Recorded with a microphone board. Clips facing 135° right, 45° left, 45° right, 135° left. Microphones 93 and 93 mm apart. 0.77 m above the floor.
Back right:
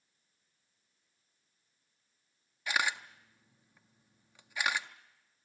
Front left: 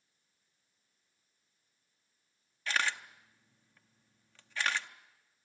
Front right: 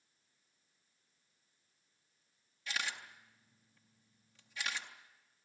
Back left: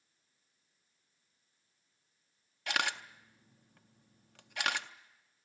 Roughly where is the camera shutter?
Behind left.